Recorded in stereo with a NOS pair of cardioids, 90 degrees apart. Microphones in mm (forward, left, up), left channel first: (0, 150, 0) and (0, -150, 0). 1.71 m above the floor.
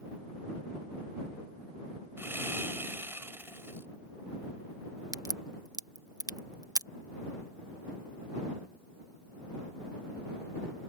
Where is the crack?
10° right.